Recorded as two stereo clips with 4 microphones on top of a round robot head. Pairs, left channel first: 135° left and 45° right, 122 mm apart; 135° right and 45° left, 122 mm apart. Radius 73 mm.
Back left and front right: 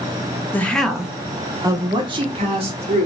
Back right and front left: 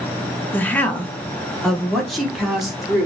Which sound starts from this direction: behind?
A woman speaking, at 0.5 s.